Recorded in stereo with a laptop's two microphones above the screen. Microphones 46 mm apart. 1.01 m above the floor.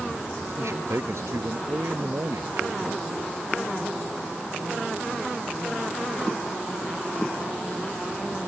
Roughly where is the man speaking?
Right.